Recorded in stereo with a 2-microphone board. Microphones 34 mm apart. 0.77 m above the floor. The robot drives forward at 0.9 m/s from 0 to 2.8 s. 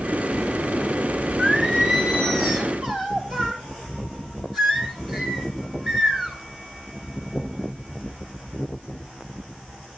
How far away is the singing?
About 2.5 m.